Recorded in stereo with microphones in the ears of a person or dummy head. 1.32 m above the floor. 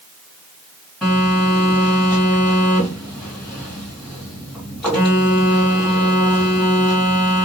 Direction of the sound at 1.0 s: Centre (ahead or behind).